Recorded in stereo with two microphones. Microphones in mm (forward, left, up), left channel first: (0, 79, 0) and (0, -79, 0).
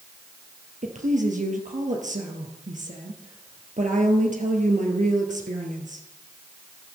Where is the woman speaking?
55° right (ahead or behind), 2.5 m.